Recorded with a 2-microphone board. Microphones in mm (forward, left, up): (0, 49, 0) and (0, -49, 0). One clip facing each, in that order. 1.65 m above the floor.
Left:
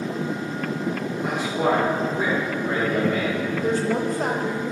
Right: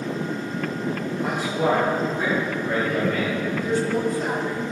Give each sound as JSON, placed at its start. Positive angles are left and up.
{"t": 1.2, "sound": "a man speaking", "side_deg": 5, "distance_m": 1.9}
{"t": 3.6, "sound": "a woman speaking", "side_deg": 50, "distance_m": 0.9}